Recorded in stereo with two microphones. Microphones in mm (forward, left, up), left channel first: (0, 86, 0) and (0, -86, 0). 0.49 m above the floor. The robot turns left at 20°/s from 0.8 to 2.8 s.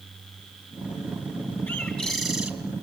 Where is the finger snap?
I don't hear a finger snap.